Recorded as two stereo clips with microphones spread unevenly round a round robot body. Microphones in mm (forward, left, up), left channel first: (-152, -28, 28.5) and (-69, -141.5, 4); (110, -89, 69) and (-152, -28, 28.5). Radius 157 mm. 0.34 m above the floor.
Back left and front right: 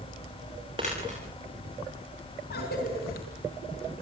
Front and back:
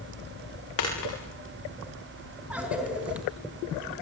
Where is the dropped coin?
20° left, 8 m.